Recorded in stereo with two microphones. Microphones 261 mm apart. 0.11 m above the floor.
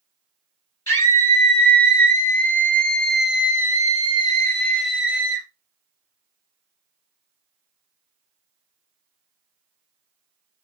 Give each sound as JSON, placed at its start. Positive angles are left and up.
{"t": 0.9, "sound": "a scream", "side_deg": 60, "distance_m": 3.0}